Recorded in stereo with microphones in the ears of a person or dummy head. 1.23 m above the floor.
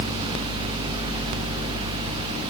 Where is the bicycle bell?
No bicycle bell in this recording.